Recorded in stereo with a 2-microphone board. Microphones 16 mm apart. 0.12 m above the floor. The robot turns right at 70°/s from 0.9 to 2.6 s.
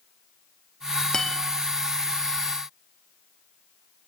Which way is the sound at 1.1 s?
50° left (ahead or behind).